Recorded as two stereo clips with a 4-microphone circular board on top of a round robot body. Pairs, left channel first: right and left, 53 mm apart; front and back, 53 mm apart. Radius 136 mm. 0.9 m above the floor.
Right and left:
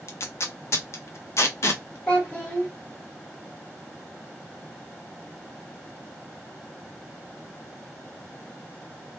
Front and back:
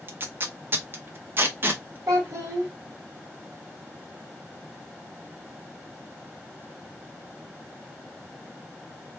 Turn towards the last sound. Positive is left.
turn(degrees=-150)